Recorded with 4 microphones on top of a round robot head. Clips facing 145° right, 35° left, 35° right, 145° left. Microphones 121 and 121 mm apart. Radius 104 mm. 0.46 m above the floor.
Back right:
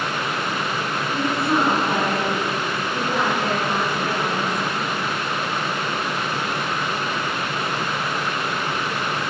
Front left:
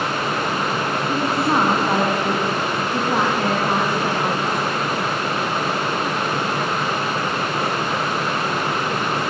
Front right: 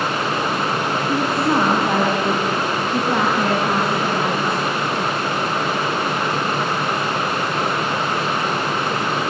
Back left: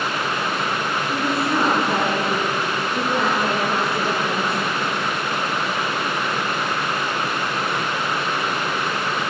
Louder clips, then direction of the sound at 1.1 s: Front left 1 dB, front right 4 dB; 20° right.